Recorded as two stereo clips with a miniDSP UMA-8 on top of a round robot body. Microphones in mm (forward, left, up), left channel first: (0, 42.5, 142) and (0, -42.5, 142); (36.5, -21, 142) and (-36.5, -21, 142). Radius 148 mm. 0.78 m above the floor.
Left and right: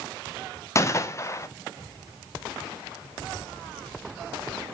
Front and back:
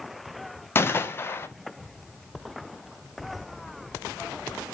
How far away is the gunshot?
About 0.6 m.